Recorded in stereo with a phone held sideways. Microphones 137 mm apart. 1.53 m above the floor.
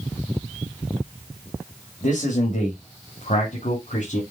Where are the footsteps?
I don't hear footsteps.